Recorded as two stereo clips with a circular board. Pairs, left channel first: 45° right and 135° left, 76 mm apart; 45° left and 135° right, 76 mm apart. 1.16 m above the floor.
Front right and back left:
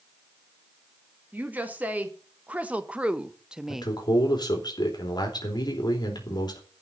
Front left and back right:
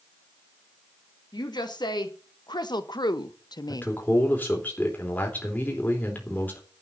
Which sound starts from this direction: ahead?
A man speaking, at 3.7 s.